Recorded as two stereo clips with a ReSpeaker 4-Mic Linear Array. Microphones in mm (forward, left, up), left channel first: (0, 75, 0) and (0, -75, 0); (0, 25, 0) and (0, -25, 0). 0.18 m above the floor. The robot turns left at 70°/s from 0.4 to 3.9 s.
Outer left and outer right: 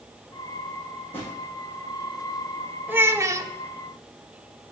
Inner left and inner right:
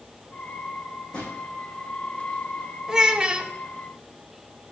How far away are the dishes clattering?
I don't hear dishes clattering.